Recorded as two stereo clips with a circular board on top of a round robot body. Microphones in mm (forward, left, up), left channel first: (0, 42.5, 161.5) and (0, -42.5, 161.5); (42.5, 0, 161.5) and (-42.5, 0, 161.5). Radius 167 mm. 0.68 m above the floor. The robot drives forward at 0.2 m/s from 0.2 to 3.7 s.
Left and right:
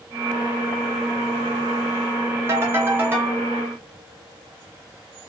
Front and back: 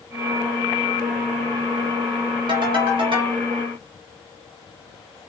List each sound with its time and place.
2.5 s a ringtone: 150° right, 0.6 m; by 3.4 s 160° right, 0.7 m